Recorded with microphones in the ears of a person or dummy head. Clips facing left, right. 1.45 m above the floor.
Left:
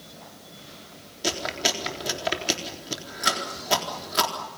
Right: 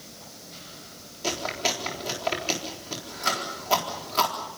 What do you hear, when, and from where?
1.2 s chewing: 15° left (ahead or behind), 3.5 m